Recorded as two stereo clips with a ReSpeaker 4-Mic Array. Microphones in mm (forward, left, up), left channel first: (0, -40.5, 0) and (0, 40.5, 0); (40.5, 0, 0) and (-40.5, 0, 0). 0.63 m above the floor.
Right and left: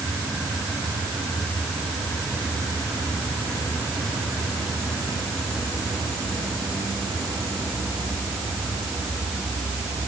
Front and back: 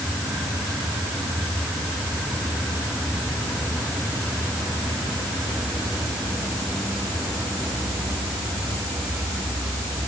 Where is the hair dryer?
I don't hear a hair dryer.